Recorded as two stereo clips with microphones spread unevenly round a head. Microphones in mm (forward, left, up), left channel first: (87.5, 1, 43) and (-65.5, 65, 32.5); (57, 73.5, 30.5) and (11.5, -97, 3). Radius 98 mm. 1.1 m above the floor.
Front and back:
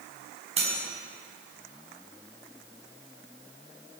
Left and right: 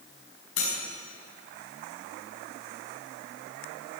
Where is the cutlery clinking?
105° left, 5.5 m.